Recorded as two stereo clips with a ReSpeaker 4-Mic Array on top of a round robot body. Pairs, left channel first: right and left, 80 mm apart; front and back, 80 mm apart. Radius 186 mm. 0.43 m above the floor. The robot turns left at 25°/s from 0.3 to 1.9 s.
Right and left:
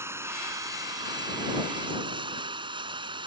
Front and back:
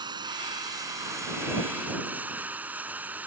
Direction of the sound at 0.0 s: 150° left.